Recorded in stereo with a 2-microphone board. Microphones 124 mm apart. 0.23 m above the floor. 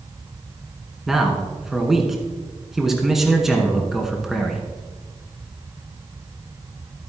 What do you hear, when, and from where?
1.1 s a man speaking: centre (ahead or behind), 2 m